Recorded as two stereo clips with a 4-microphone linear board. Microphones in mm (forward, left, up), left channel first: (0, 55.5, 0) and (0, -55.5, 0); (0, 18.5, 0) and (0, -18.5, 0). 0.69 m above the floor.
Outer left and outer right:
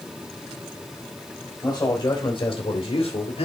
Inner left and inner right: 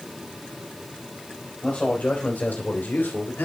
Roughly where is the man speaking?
Left.